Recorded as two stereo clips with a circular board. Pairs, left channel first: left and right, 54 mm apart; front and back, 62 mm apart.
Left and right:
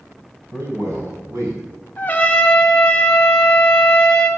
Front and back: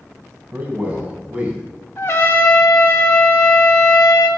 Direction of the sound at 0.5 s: 115° right.